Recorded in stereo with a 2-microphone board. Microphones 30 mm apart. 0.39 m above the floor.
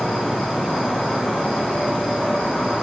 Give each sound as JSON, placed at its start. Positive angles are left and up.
{"t": 0.0, "sound": "an insect", "side_deg": 80, "distance_m": 3.0}